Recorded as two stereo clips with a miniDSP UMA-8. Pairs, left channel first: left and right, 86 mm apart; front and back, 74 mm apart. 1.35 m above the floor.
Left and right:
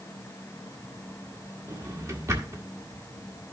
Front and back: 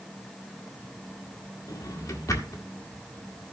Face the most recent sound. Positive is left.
turn(degrees=-40)